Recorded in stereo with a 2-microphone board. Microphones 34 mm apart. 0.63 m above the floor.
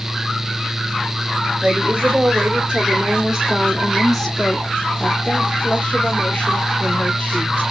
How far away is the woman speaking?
About 1.4 m.